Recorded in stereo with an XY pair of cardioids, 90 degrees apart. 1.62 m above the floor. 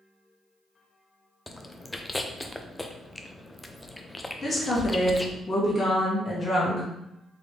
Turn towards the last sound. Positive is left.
turn(degrees=35)